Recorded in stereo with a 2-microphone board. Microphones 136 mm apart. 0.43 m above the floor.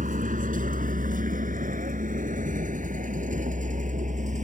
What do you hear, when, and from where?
0.0 s a vehicle: 75° right (ahead or behind); by 4.5 s 65° right (ahead or behind)